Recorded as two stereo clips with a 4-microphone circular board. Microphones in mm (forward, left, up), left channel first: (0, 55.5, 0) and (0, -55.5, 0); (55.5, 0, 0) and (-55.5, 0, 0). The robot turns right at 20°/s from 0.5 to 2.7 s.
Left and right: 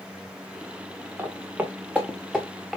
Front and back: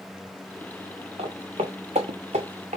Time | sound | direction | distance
1.2 | footsteps | 160° right | 1.2 m